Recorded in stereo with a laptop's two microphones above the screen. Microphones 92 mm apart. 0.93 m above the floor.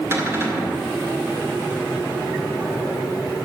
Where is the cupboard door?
30° right (ahead or behind), 2 m.